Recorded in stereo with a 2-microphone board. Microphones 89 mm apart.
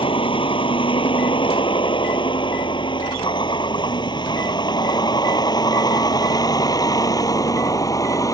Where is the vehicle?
80° left; by 8.3 s 40° left (ahead or behind).